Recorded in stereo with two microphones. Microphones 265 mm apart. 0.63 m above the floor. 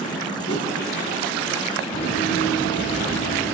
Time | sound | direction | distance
0.5 | a whoosh | 70° left (ahead or behind) | 3.5 m
1.9 | running footsteps | 50° left (ahead or behind) | 6 m